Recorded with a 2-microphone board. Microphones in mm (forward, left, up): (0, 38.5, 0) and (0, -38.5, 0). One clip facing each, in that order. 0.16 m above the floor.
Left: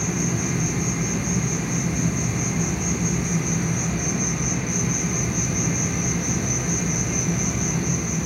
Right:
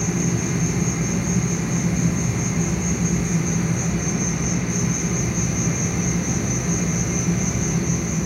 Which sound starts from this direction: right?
An insect, at 0.0 s.